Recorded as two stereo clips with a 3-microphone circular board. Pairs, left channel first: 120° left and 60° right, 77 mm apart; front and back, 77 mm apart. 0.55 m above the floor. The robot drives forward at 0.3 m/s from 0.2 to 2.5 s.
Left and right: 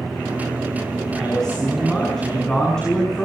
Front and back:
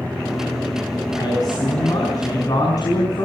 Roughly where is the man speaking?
Ahead left.